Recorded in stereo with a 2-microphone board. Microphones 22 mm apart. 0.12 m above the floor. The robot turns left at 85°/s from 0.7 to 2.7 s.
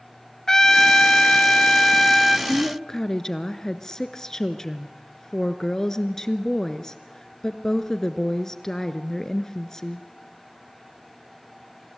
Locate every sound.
0.5 s a trumpet: 145° left, 1.0 m; by 2.4 s straight ahead, 1.0 m
2.5 s a woman speaking: 15° left (ahead or behind), 1.3 m; by 10.1 s 25° left (ahead or behind), 1.3 m